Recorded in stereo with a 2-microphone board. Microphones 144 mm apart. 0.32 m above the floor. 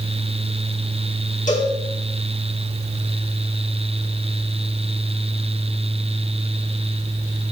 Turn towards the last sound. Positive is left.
turn(degrees=60)  # may be behind; listen again after turning